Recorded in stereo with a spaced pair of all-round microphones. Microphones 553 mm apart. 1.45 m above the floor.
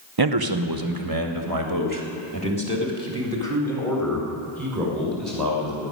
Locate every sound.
0.2 s a man speaking: 45° right (ahead or behind), 0.9 m; by 5.8 s 30° right (ahead or behind), 6 m